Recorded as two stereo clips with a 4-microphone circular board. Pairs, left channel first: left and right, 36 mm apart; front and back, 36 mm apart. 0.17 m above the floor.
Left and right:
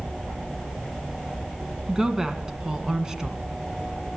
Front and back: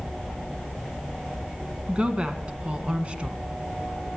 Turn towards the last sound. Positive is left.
turn(degrees=-150)